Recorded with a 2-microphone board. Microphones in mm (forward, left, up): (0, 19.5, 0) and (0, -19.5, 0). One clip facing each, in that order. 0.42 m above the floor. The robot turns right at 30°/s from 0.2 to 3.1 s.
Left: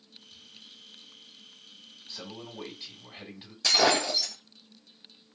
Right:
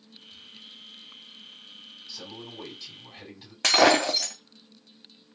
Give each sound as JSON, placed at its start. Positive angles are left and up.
{"t": 2.1, "sound": "a man speaking", "azimuth_deg": 125, "distance_m": 2.0}
{"t": 3.6, "sound": "breaking glass", "side_deg": -65, "distance_m": 1.3}